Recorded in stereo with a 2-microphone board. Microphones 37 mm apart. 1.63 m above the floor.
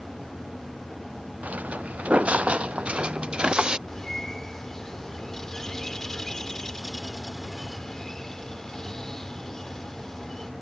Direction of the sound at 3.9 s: 10° left (ahead or behind).